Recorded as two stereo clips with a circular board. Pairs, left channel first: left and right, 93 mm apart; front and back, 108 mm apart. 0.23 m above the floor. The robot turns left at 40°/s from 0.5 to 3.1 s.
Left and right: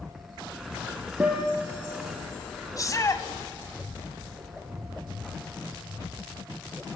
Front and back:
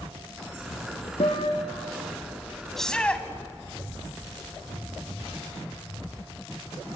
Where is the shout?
85° left, 1.7 m; by 3.2 s 70° left, 1.7 m.